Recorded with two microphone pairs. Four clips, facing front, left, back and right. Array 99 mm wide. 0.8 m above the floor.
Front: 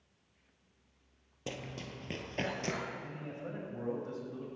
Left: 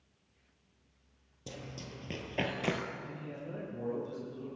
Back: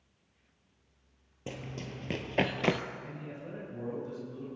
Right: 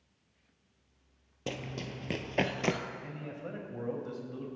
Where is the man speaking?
70° right, 5 m.